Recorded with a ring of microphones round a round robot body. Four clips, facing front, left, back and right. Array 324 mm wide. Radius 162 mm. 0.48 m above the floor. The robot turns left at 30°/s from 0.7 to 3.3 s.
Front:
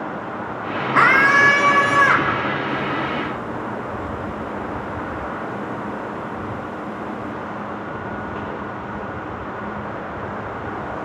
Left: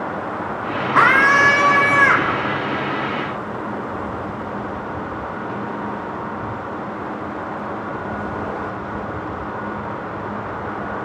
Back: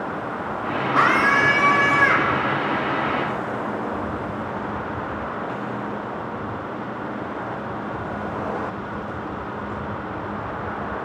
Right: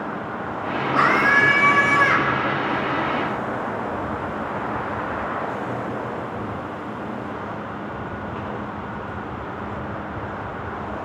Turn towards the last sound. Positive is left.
turn(degrees=5)